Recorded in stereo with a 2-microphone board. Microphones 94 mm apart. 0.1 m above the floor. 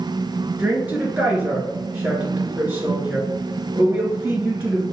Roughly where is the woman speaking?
Centre.